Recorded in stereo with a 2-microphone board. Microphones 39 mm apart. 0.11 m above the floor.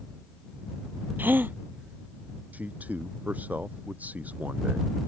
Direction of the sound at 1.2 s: 60° right (ahead or behind).